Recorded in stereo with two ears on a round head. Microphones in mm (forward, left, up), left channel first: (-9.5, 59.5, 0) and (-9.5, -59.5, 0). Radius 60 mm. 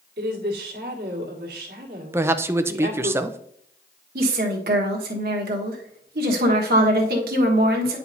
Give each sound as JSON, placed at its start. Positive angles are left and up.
{"t": 0.2, "sound": "a woman speaking", "side_deg": -85, "distance_m": 1.7}
{"t": 2.1, "sound": "a man speaking", "side_deg": -20, "distance_m": 0.5}
{"t": 4.2, "sound": "a woman speaking", "side_deg": -75, "distance_m": 1.3}